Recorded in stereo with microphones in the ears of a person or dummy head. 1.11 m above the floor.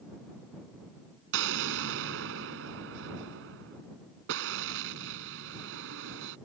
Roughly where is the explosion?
Right.